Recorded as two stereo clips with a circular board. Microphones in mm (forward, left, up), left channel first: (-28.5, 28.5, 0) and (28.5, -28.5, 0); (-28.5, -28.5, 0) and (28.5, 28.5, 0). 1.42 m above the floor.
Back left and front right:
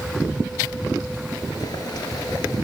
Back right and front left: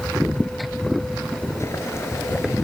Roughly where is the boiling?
Behind.